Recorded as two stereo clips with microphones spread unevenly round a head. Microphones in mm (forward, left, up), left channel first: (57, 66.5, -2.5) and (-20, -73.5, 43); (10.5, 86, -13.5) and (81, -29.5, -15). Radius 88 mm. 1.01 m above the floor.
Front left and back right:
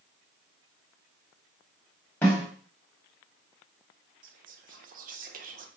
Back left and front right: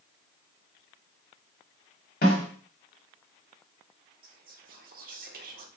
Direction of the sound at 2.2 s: 145° left.